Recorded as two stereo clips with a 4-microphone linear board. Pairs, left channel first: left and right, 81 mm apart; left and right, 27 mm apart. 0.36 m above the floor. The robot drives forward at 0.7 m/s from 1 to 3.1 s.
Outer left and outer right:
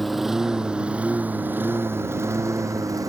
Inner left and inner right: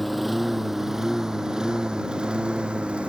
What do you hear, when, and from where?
0.0 s a lawn mower: centre (ahead or behind); by 3.1 s 45° right (ahead or behind)